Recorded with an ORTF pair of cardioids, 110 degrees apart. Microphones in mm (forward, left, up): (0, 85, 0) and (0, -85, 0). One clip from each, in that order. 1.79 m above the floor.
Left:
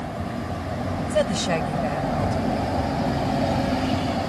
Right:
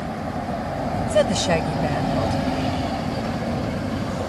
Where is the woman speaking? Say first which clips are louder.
Right 3 dB; 25° right.